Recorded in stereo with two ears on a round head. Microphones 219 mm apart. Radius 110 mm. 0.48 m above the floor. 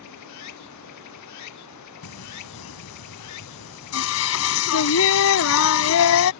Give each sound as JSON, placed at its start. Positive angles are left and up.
{"t": 0.0, "sound": "running water", "side_deg": 80}
{"t": 2.0, "sound": "singing", "side_deg": 65}